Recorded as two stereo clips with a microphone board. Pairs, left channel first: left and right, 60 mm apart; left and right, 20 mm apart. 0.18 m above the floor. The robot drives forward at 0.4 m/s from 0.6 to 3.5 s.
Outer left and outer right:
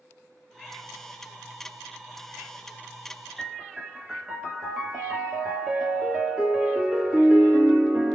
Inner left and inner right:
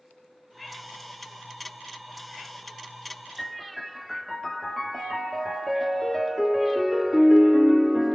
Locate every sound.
3.4 s a piano: 10° right (ahead or behind), 1.1 m